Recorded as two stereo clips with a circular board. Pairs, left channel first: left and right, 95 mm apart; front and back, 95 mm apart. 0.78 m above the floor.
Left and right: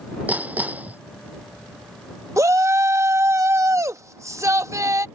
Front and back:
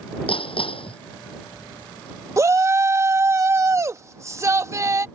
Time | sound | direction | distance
0.3 | hammering | 15° right | ?
2.4 | a shout | 135° right | ?